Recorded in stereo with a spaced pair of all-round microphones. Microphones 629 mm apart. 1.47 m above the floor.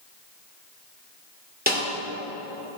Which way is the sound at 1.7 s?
15° right (ahead or behind).